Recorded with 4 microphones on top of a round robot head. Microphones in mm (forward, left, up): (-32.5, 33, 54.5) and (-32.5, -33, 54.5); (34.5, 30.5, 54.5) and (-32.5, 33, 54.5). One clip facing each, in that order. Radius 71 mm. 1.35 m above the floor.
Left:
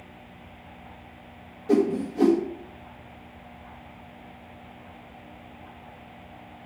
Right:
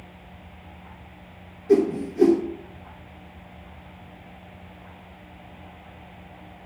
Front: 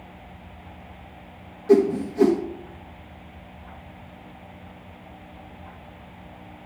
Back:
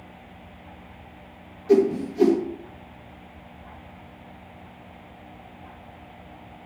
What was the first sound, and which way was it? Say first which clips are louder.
A whoosh: right 2 dB, front 1 dB; 55° left.